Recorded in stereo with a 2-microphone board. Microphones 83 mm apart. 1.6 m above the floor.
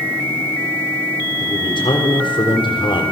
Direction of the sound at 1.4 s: 85° left.